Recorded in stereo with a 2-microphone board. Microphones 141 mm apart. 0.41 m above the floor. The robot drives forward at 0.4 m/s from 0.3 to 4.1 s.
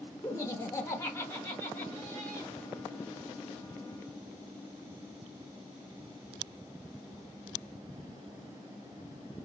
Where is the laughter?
20° left (ahead or behind), 0.8 m; by 2.5 s 15° left (ahead or behind), 1.0 m.